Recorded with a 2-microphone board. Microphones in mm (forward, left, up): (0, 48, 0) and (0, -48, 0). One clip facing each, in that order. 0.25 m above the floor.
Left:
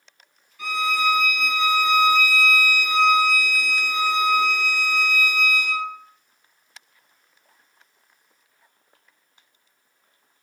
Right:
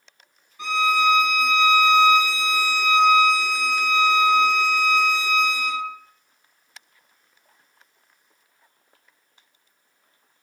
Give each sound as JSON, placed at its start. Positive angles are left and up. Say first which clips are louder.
{"t": 0.6, "sound": "a violin", "louder": "right 3 dB", "side_deg": -30, "distance_m": 0.7}